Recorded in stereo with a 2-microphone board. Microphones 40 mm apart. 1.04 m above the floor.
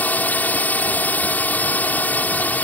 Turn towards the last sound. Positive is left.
turn(degrees=45)  # may be behind; listen again after turning